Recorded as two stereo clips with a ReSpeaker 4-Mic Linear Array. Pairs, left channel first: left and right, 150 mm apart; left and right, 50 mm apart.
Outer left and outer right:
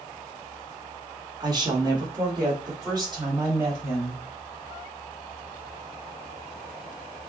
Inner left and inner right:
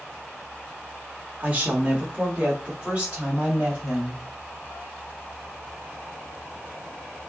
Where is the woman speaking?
30° right (ahead or behind), 1.4 m; by 4.2 s 25° right (ahead or behind), 3.5 m.